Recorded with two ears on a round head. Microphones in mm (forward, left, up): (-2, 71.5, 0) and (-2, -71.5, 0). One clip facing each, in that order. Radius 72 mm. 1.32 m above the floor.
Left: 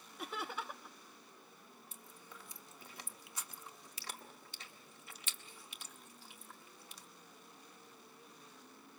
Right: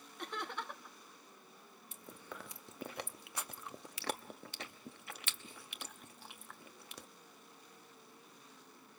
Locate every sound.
0.2 s laughter: 5° left (ahead or behind), 1.0 m
1.9 s chewing: 50° right (ahead or behind), 1.0 m